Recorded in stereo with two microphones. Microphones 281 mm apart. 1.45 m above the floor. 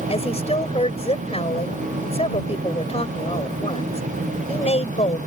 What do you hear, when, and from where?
0.1 s a woman speaking: 20° left (ahead or behind)